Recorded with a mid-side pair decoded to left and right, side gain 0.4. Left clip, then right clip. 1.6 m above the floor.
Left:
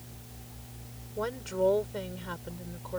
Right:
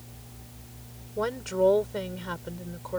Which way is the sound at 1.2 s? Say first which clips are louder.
Right 4 dB; 30° right.